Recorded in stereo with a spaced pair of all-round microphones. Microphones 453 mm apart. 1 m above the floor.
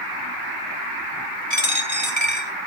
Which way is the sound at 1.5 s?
75° left (ahead or behind).